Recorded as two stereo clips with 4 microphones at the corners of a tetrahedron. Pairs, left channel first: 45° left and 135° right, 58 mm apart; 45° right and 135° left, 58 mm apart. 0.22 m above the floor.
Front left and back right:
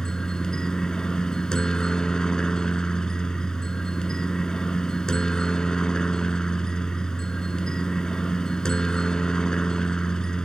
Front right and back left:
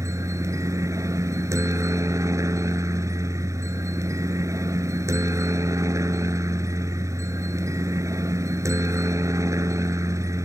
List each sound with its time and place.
0.0 s a helicopter: 120° left